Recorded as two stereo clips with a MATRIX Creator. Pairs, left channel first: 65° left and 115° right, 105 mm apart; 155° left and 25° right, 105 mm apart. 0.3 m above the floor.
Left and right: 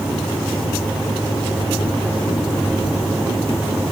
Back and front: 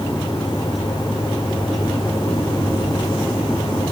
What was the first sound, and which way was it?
Only background noise.